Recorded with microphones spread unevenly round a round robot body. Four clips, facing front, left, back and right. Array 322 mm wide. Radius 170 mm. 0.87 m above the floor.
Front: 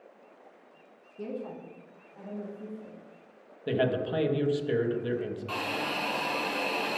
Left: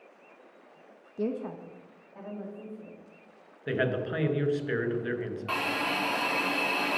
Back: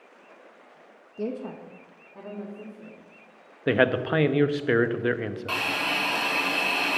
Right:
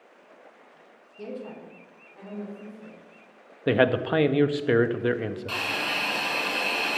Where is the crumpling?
I don't hear crumpling.